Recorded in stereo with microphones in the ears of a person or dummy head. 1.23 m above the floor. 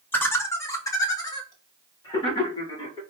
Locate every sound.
0.1 s laughter: 10° left (ahead or behind), 0.6 m; by 3.0 s 20° left (ahead or behind), 1.9 m